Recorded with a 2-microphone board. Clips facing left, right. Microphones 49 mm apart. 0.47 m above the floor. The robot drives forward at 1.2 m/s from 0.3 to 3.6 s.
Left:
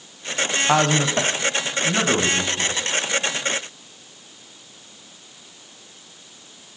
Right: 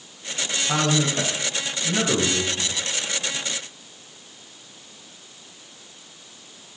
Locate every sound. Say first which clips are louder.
0.7 s a man speaking: left 3 dB; 65° left (ahead or behind), 3 m; by 2.7 s 40° left (ahead or behind), 4.5 m